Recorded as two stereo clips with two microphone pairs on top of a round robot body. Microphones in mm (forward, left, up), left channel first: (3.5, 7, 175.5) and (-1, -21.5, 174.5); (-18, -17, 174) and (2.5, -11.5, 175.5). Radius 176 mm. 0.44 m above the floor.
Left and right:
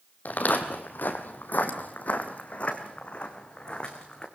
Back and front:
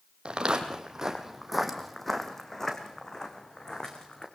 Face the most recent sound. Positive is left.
turn(degrees=140)